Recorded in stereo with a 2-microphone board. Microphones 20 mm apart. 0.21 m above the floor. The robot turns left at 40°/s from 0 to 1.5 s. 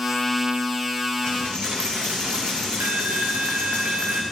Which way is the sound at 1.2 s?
65° right (ahead or behind).